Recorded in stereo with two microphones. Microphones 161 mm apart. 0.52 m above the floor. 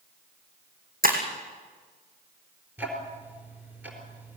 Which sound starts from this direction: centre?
Ticking, at 2.8 s.